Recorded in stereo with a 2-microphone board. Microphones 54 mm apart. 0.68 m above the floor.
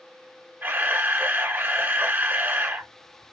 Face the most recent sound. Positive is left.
turn(degrees=-40)  # may be behind; listen again after turning